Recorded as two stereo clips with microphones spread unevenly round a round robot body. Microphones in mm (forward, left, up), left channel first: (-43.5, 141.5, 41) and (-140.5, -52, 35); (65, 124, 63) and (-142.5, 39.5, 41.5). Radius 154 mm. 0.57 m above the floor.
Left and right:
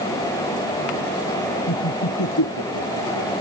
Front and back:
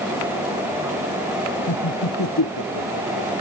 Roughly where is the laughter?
Ahead left.